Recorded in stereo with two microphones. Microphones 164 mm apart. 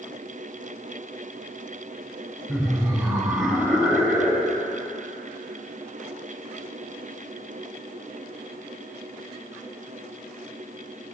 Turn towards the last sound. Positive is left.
turn(degrees=0)  # may be behind; listen again after turning